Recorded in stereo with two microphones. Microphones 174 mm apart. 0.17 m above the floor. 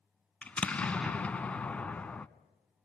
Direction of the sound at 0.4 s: 5° left (ahead or behind).